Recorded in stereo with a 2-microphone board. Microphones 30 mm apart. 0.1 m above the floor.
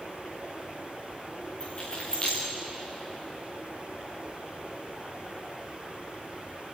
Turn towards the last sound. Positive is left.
turn(degrees=35)  # may be behind; listen again after turning